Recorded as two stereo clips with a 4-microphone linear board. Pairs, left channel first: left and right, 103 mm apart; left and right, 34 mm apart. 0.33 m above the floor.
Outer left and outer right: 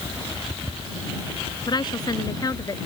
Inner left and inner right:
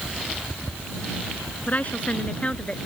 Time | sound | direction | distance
1.7 | a woman speaking | 45° left (ahead or behind) | ?